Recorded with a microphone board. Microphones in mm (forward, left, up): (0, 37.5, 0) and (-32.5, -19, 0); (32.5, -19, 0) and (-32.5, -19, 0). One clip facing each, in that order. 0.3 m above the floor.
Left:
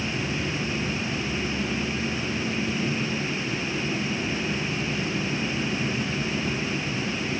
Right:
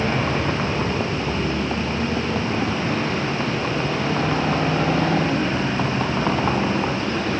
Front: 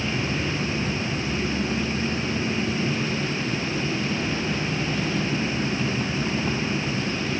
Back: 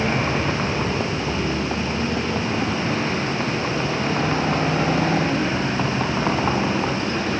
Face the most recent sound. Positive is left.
turn(degrees=-140)